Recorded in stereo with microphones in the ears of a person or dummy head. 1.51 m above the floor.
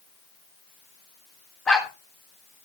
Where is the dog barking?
5° left (ahead or behind), 1.2 m.